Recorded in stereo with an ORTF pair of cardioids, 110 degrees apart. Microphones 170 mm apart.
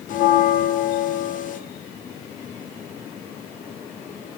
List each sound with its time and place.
0.1 s a bell: 50° left, 0.6 m